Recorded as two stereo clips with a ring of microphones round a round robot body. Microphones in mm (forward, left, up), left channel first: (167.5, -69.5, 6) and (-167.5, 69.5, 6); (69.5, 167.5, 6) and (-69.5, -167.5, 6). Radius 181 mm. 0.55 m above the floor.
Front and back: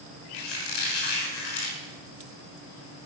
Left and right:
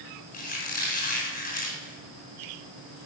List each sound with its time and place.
0.3 s a squeak: 5° right, 4.5 m